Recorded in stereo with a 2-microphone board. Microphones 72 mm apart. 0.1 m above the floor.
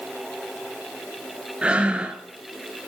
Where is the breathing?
15° right (ahead or behind), 0.9 m.